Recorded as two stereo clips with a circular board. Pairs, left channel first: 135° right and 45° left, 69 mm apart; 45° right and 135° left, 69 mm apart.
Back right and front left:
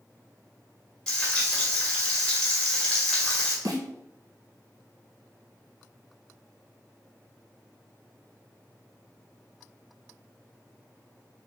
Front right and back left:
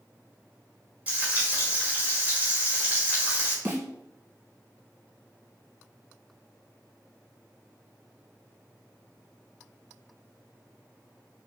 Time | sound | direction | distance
1.1 | frying | 165° left | 1.5 m
3.6 | a snare drum | 75° left | 1.7 m